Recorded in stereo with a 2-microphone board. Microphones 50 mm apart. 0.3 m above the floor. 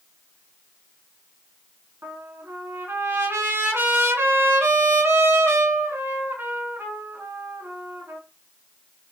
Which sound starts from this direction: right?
A trumpet, at 2.0 s.